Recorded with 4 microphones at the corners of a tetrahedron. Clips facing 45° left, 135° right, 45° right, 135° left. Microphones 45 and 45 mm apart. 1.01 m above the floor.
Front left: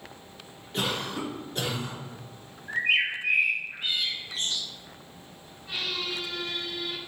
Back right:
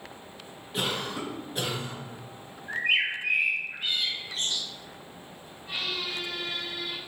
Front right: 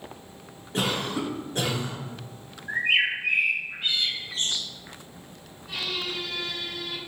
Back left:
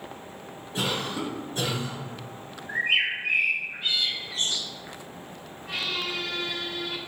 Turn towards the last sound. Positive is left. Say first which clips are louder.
# even, back left 1 dB
turn(degrees=150)